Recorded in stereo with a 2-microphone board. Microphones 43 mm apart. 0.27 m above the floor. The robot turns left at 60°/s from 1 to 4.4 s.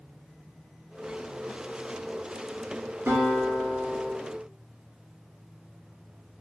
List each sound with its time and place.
3.1 s a guitar: 95° right, 1.8 m; by 4.1 s 160° right, 1.8 m